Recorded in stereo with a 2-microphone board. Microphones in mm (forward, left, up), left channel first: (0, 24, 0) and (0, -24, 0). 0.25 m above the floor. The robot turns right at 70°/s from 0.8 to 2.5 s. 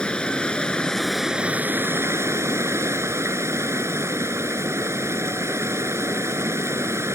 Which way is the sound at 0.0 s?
160° left.